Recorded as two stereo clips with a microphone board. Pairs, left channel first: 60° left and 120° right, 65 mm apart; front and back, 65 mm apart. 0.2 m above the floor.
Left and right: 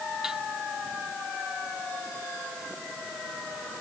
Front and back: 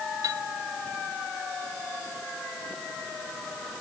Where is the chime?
155° left.